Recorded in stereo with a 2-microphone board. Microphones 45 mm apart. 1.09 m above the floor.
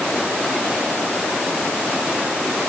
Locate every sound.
Only background noise.